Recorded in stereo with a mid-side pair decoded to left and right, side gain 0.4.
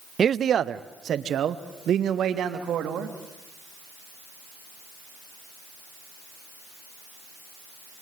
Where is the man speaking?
50° right, 0.8 m; by 3.1 s 80° right, 3 m.